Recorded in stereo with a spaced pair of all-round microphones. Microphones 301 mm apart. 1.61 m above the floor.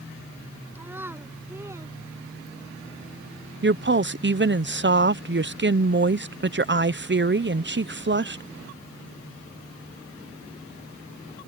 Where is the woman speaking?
40° right (ahead or behind).